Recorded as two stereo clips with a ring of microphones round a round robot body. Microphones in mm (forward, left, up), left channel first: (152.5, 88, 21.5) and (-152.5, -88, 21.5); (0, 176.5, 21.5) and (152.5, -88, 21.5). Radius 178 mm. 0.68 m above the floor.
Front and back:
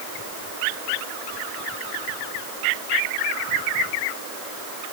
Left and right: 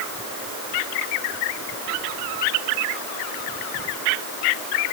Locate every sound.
Only background noise.